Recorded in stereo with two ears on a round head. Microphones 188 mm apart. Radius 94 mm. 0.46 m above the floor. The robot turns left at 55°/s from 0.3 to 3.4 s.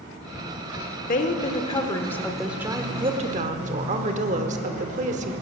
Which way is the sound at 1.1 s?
70° left.